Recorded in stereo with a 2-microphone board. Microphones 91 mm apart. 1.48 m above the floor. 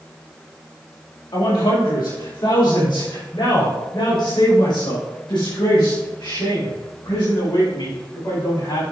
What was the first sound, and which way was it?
A man speaking, 65° left (ahead or behind).